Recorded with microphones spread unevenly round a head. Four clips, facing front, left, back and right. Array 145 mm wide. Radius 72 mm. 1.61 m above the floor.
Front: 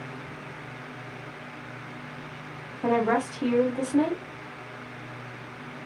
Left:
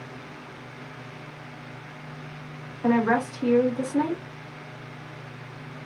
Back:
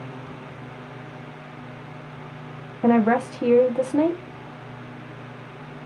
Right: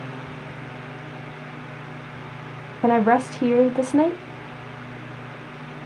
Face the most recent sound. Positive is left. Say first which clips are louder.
# right 5 dB, back 5 dB
turn(degrees=-110)